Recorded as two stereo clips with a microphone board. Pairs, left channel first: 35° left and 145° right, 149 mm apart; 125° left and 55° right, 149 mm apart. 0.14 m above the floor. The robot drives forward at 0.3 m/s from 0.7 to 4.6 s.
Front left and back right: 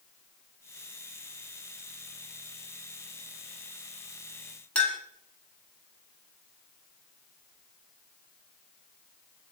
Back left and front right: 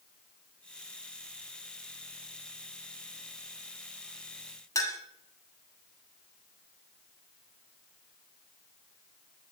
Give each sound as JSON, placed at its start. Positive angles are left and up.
{"t": 4.8, "sound": "a clink", "azimuth_deg": 105, "distance_m": 0.7}